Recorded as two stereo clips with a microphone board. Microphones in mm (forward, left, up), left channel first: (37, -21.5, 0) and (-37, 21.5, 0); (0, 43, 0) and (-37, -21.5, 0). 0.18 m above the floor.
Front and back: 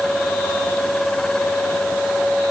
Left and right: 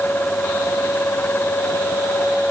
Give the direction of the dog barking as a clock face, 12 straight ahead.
No dog barking in this recording.